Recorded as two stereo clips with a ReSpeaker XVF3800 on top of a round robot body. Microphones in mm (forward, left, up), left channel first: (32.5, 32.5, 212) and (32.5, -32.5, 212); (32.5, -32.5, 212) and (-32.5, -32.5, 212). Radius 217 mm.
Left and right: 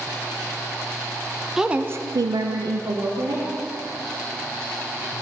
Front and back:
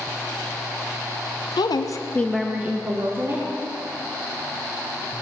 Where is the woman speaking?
5° right, 0.9 m; by 3.5 s 125° right, 2 m.